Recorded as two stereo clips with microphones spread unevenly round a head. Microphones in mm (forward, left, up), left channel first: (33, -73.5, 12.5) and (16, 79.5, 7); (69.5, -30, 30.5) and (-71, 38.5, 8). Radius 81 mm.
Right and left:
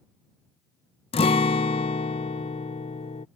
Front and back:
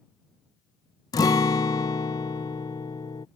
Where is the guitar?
65° right.